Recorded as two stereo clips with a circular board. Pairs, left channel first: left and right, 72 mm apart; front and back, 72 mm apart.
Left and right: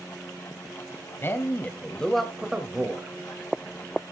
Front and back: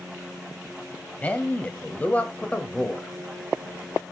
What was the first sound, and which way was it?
A man speaking, 60° left.